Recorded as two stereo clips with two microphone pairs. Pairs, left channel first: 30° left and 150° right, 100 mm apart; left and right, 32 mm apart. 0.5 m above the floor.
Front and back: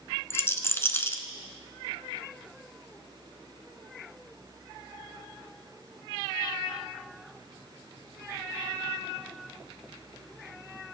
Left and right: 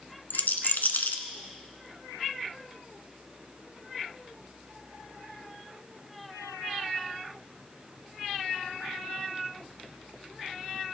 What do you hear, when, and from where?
0.3 s a rattle: 95° left, 1.0 m